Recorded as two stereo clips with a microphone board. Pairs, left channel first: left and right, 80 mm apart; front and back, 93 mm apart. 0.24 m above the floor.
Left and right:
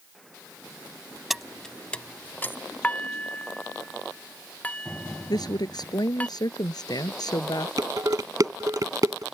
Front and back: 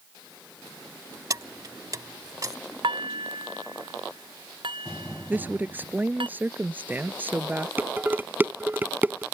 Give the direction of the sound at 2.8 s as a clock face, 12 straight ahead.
7 o'clock.